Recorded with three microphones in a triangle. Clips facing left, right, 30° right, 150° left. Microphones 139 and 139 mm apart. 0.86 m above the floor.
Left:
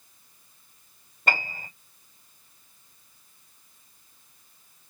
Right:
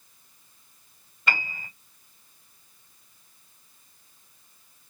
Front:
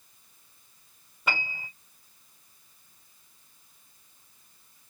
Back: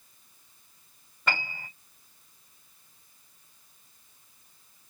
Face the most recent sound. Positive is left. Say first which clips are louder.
# left 2 dB, even
turn(degrees=50)